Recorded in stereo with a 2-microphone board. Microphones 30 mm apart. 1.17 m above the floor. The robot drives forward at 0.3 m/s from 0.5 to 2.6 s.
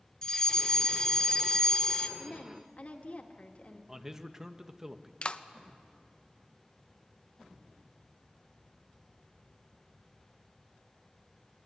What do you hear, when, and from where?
0.2 s a fire alarm: 20° left (ahead or behind), 1.0 m
2.2 s a woman speaking: 45° left (ahead or behind), 2 m; by 3.8 s 50° left (ahead or behind), 2 m
3.9 s a man speaking: 15° right (ahead or behind), 1.0 m
5.2 s a clap: 40° left (ahead or behind), 0.7 m